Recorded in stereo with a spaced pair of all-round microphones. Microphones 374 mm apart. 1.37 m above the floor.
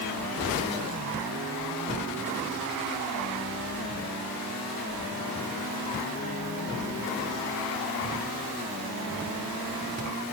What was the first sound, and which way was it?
Only background noise.